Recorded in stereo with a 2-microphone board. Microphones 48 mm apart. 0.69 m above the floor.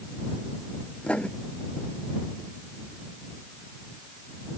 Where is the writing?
25° left (ahead or behind).